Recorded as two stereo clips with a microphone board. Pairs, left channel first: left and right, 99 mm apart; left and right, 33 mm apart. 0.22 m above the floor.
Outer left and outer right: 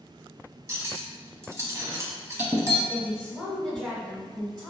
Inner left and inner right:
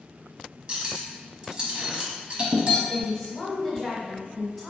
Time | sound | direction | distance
0.7 | cutlery clinking | 30° right (ahead or behind) | 0.7 m
2.9 | a woman speaking | 5° right (ahead or behind) | 1.1 m